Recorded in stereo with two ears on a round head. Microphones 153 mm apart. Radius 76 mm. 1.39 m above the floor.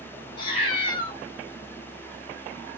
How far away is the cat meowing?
About 1.3 m.